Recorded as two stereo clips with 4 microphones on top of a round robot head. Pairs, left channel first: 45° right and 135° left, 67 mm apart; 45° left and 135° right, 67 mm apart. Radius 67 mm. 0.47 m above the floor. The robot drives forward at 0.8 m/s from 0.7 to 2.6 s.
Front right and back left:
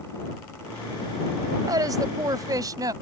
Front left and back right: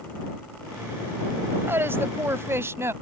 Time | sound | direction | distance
1.7 | a woman speaking | 165° left | ?